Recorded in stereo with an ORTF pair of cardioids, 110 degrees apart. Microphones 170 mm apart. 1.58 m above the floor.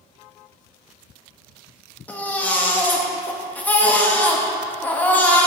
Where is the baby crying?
10° left, 1.7 m.